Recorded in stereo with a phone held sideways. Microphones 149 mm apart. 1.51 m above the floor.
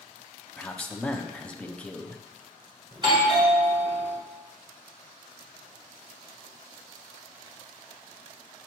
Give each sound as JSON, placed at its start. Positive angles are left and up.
{"t": 0.6, "sound": "a man speaking", "side_deg": 10, "distance_m": 0.6}
{"t": 2.9, "sound": "a doorbell", "side_deg": -30, "distance_m": 1.4}